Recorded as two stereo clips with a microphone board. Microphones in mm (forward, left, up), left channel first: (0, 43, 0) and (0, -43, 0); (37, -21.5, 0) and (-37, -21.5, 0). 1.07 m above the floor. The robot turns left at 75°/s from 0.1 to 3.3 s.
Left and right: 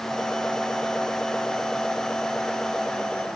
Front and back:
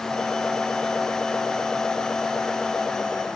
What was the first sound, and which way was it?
Only background noise.